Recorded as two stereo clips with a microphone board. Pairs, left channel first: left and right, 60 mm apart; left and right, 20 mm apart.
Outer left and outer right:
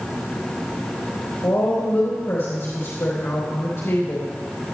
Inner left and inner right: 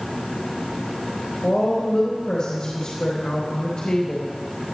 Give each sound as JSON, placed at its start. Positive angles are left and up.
{"t": 1.4, "sound": "a woman speaking", "side_deg": 50, "distance_m": 3.0}